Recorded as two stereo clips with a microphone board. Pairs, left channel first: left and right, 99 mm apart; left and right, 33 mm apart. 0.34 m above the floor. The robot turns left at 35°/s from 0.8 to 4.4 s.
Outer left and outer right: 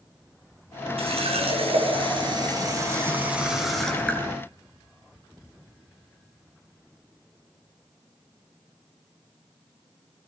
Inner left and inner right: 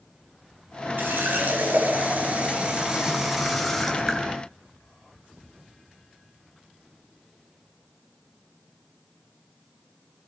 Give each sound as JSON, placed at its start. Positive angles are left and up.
{"t": 1.0, "sound": "a running tap", "azimuth_deg": -85, "distance_m": 3.0}